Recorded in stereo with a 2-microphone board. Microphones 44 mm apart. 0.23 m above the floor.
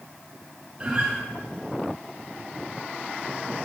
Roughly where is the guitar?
Right.